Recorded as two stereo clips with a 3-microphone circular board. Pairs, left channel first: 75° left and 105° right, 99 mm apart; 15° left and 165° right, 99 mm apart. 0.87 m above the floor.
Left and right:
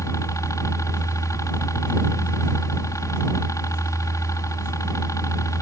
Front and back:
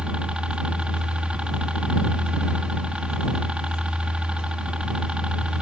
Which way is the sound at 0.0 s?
120° left.